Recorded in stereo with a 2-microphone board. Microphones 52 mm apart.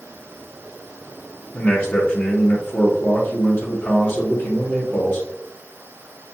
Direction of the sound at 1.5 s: 30° left (ahead or behind).